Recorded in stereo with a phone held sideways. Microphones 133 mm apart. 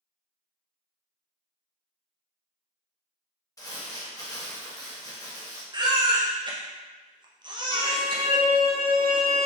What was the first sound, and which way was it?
Crumpling, 25° left (ahead or behind).